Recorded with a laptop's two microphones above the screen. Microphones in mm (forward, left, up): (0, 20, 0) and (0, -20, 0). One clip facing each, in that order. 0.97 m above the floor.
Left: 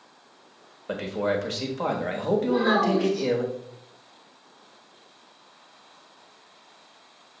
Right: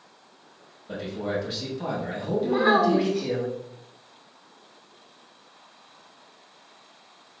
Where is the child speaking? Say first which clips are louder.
Right 4 dB; 55° right (ahead or behind), 0.5 m.